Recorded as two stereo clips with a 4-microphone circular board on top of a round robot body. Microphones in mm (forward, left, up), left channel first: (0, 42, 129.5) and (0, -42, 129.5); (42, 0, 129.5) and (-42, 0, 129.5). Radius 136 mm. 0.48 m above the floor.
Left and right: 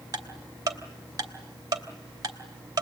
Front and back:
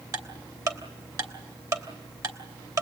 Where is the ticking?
135° right, 3 m.